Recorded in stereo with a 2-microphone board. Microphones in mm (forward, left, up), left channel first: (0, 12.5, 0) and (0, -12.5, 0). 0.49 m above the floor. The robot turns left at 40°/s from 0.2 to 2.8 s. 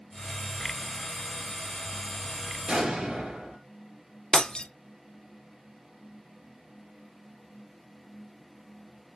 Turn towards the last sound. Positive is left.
turn(degrees=35)  # may be behind; listen again after turning